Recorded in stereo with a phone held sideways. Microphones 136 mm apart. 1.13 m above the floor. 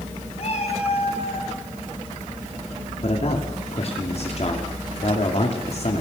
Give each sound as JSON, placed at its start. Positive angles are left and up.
{"t": 0.4, "sound": "a cat meowing", "side_deg": 50, "distance_m": 5.5}
{"t": 3.0, "sound": "a man speaking", "side_deg": 50, "distance_m": 3.0}